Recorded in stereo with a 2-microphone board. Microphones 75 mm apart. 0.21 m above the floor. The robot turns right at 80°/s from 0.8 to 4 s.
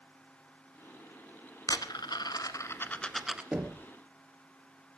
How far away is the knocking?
About 2.5 m.